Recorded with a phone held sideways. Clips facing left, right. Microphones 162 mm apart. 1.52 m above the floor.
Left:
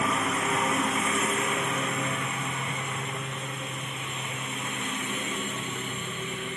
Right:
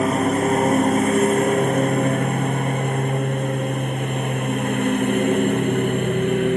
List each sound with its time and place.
0.0 s a lawn mower: 45° right (ahead or behind); by 6.6 s 60° right (ahead or behind)